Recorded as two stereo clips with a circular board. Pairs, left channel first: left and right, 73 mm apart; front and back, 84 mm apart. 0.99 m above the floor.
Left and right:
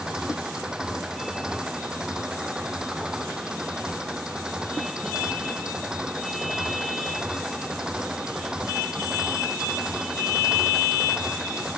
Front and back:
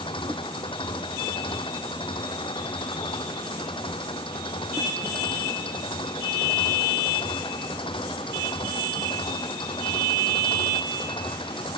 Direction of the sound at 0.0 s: 10° right.